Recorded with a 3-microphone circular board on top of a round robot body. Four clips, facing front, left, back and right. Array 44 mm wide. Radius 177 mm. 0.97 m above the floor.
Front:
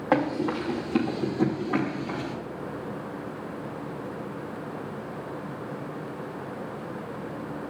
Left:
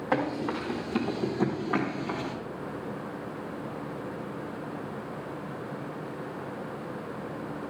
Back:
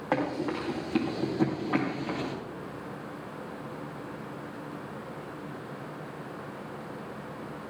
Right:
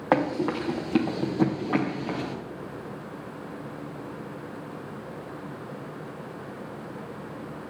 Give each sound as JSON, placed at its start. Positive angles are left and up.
{"t": 0.1, "sound": "running footsteps", "azimuth_deg": -80, "distance_m": 3.0}